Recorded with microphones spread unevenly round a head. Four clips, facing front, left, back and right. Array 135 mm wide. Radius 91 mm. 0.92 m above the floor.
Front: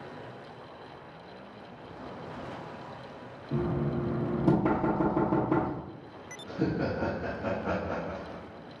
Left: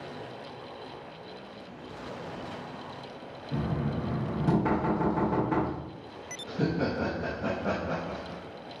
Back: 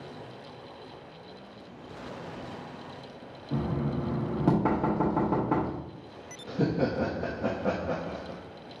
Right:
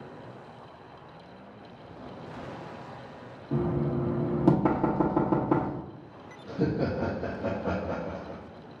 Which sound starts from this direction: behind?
Laughter, at 6.5 s.